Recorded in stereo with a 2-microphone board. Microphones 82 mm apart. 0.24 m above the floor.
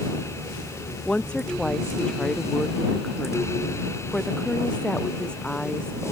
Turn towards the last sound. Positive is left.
turn(degrees=10)  # may be behind; listen again after turning